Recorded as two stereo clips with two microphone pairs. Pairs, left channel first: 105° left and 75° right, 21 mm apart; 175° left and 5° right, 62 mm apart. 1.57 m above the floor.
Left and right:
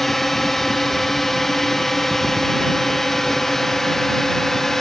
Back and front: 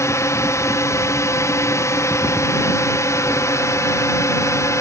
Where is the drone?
Straight behind; by 4.8 s 175° left.